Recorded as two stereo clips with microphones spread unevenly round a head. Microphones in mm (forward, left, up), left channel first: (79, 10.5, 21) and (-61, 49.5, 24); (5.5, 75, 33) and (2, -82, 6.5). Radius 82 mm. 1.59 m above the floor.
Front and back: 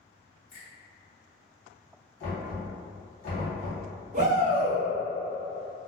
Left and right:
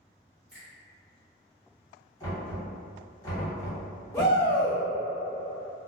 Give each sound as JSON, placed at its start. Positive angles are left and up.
{"t": 0.5, "sound": "a finger snap", "azimuth_deg": -5, "distance_m": 1.6}
{"t": 2.2, "sound": "knocking", "azimuth_deg": 20, "distance_m": 1.3}
{"t": 4.1, "sound": "a shout", "azimuth_deg": 145, "distance_m": 0.5}